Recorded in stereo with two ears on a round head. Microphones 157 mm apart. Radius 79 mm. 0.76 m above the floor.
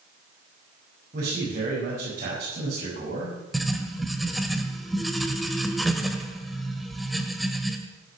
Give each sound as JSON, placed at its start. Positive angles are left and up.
{"t": 1.1, "sound": "a man speaking", "side_deg": -45, "distance_m": 6.0}
{"t": 3.5, "sound": "writing", "side_deg": 0, "distance_m": 1.4}